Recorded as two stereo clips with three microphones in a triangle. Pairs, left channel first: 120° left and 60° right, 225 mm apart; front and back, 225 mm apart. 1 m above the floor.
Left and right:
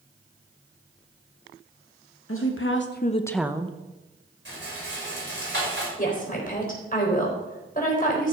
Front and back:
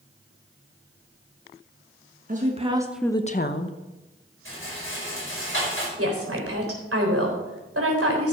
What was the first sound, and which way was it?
A woman speaking, 130° left.